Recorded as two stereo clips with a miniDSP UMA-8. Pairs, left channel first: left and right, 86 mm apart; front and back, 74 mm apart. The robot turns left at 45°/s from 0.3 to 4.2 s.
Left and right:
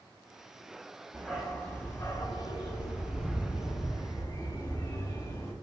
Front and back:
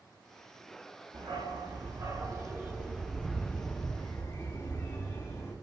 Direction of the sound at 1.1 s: 170° right.